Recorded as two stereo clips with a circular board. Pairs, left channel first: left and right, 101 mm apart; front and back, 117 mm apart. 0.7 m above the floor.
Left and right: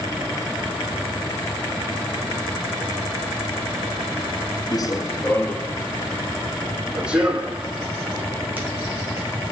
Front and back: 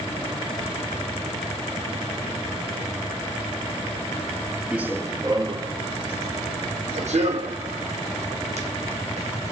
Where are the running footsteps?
105° left, 0.9 m; by 9.5 s 160° right, 3.5 m.